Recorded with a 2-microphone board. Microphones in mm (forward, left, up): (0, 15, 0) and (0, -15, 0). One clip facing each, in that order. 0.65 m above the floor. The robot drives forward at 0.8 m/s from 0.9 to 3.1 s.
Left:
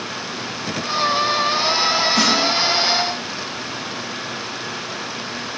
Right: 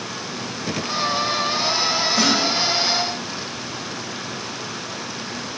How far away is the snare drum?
About 3 m.